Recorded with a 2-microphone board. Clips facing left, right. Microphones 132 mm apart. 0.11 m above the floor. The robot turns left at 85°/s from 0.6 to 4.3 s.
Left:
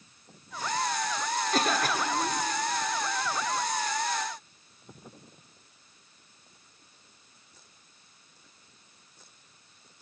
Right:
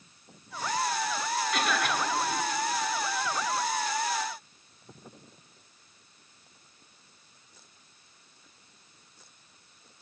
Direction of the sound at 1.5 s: 110° left.